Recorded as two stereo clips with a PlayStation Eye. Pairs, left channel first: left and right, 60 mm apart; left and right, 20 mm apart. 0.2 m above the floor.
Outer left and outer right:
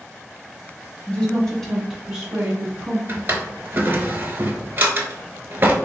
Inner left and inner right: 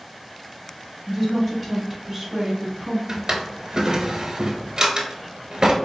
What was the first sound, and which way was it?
A woman speaking, 20° left (ahead or behind).